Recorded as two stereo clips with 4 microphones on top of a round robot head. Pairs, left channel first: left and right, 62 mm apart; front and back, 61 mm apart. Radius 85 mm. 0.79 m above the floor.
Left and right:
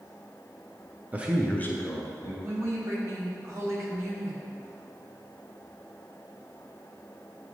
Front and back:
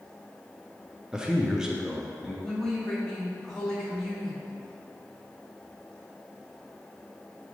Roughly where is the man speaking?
Behind right.